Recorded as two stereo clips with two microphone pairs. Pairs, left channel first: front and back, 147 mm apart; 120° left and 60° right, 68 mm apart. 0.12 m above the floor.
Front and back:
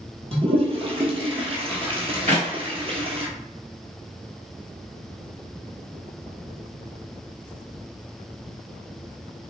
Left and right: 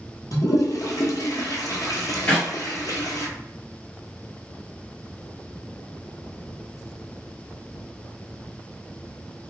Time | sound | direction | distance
0.3 | a toilet flushing | 135° left | 0.9 m
2.3 | a clap | 170° right | 1.9 m